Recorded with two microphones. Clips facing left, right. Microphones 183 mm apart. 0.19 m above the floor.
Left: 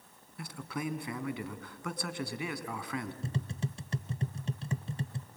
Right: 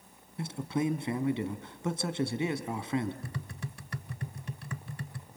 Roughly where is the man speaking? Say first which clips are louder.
Right 7 dB; right.